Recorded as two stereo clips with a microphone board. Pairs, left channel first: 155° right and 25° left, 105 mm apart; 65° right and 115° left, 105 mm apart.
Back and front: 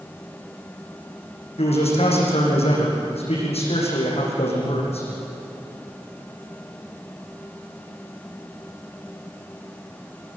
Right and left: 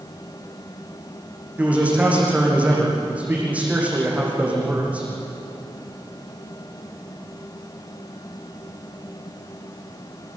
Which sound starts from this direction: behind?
A man speaking, at 1.6 s.